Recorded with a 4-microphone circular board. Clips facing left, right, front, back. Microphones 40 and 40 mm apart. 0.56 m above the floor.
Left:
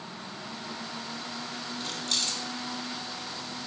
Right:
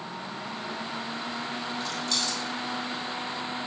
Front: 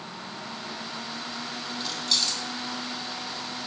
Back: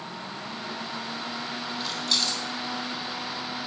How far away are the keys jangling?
About 1.0 m.